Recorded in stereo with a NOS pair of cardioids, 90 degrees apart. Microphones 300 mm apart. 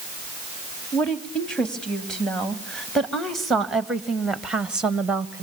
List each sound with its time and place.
0.9 s a woman speaking: 5° left, 4 m; by 5.4 s 5° right, 1.5 m